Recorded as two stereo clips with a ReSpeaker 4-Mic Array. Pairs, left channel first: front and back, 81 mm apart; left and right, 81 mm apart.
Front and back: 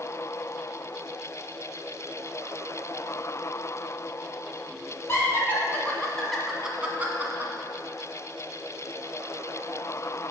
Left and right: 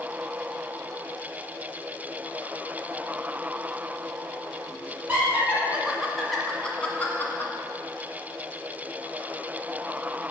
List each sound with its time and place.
5.1 s laughter: 35° right, 1.4 m; by 7.5 s 135° left, 1.4 m